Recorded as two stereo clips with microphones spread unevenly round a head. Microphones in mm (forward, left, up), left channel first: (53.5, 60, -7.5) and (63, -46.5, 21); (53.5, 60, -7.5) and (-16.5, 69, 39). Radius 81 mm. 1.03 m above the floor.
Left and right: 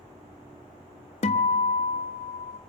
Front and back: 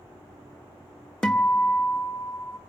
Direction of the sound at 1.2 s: 75° left.